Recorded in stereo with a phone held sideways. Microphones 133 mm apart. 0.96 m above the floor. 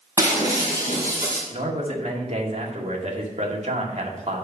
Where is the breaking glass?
25° right (ahead or behind), 4.5 m.